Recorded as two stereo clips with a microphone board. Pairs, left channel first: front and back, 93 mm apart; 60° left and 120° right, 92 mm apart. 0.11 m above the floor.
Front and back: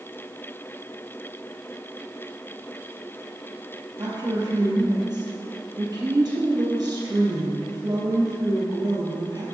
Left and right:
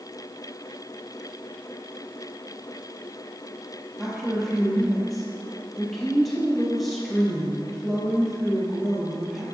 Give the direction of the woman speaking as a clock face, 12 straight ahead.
7 o'clock.